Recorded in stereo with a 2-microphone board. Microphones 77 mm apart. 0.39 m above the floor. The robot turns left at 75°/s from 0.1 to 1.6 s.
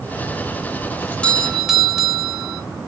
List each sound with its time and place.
1.0 s a doorbell: 40° left, 2.5 m; by 2.6 s 5° right, 2.5 m